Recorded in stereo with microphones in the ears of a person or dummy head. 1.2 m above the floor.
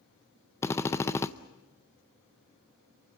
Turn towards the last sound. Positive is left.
turn(degrees=10)  # may be behind; listen again after turning